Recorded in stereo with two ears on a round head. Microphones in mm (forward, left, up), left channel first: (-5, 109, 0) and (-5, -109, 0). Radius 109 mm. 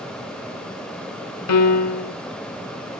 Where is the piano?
85° left, 1.5 m.